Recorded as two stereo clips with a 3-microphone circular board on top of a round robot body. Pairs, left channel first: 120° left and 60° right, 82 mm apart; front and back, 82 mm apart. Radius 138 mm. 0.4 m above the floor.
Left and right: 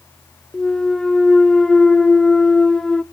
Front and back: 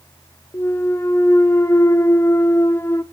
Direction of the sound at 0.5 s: 40° left.